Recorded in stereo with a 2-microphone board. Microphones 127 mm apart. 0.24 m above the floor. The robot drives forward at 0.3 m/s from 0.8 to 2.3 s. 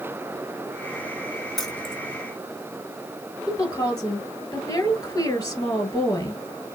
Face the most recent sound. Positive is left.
turn(degrees=30)  # may be behind; listen again after turning